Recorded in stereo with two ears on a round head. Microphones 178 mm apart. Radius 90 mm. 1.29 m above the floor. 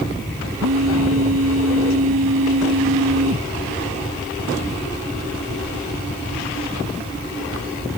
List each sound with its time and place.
0.6 s a phone buzzing: 80° right